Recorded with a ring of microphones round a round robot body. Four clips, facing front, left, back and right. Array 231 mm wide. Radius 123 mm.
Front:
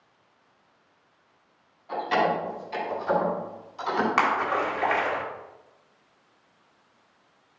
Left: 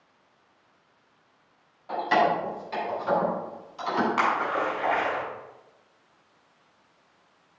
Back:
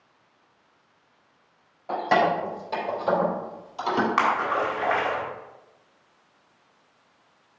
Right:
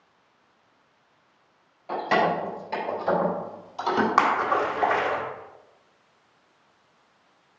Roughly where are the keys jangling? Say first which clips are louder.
Even, back 3 dB; behind.